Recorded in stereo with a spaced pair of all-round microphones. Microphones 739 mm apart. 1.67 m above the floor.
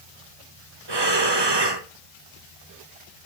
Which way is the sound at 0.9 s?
35° right (ahead or behind).